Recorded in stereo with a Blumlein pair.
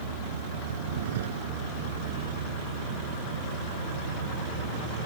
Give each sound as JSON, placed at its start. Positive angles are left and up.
{"t": 0.0, "sound": "a vehicle", "azimuth_deg": -60}